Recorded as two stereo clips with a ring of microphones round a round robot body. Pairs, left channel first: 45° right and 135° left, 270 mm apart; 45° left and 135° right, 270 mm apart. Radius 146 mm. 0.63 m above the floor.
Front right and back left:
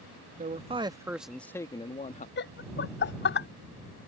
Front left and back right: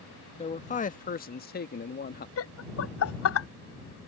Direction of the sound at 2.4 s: 5° left.